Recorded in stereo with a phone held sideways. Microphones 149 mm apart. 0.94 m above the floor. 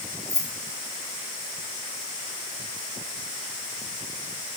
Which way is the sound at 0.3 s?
50° right (ahead or behind).